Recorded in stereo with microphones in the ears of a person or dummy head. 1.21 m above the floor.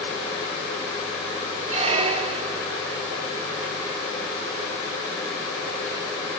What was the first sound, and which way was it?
A squeak, 35° right (ahead or behind).